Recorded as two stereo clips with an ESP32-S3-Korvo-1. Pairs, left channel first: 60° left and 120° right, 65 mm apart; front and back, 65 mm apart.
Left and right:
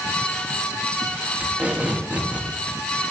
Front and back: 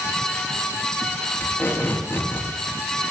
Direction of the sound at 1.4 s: 55° right.